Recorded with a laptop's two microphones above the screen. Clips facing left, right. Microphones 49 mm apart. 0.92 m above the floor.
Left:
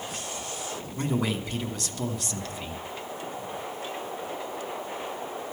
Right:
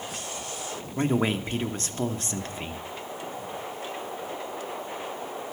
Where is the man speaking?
35° right (ahead or behind), 0.8 m.